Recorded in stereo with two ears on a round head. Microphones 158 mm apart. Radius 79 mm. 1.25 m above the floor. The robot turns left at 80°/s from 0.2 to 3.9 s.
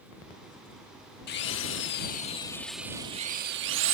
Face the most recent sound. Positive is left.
turn(degrees=-95)